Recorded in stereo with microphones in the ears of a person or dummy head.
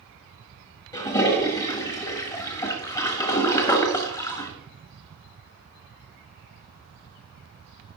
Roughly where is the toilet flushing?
Left.